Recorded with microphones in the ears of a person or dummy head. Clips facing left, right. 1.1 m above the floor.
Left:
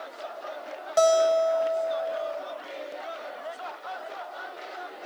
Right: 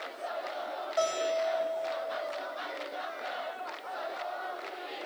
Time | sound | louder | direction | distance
1.0 | a guitar | left 10 dB | 75° left (ahead or behind) | 3.5 m